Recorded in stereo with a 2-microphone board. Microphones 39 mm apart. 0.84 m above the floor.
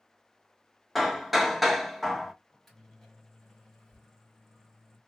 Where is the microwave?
5° left (ahead or behind), 1.8 m.